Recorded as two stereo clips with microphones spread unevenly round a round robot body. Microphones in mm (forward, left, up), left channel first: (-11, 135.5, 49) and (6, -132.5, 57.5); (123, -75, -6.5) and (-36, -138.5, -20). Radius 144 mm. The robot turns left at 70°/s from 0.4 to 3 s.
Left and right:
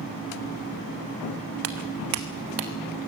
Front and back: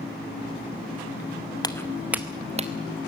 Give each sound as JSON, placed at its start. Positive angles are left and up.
{"t": 1.6, "sound": "footsteps", "azimuth_deg": -45, "distance_m": 1.4}